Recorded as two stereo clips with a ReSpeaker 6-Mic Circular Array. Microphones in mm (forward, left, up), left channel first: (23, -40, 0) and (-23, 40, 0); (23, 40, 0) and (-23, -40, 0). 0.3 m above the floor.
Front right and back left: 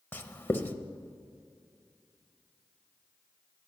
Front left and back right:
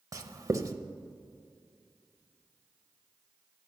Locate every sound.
0.1 s writing: 115° right, 0.6 m